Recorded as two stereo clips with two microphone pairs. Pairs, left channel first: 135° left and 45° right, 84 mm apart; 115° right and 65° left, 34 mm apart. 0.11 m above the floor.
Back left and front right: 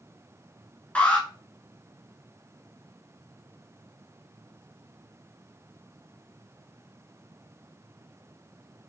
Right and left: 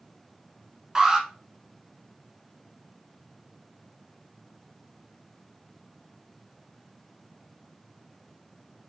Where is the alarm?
105° left, 1.1 m.